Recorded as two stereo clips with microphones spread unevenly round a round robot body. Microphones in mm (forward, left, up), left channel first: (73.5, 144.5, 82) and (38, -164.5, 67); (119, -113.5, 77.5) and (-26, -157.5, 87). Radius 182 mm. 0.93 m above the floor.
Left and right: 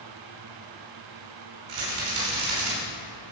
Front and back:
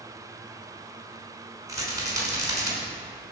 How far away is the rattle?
About 4.5 m.